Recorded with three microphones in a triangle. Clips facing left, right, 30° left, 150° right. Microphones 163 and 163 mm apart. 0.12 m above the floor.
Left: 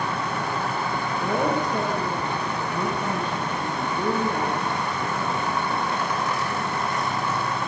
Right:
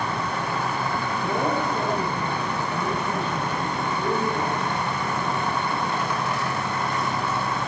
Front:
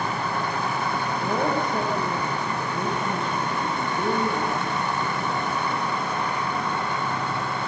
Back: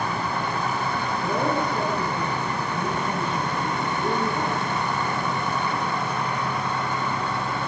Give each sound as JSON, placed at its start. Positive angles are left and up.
{"t": 1.2, "sound": "a woman speaking", "azimuth_deg": 80, "distance_m": 7.5}